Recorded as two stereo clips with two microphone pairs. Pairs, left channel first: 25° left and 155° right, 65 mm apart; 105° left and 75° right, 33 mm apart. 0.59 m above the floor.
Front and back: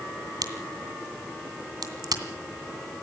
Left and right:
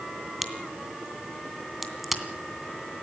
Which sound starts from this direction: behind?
A crack, at 0.4 s.